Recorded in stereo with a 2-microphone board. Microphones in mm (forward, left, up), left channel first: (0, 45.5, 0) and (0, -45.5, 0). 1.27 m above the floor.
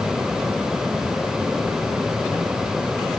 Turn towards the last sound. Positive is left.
No sound to turn to.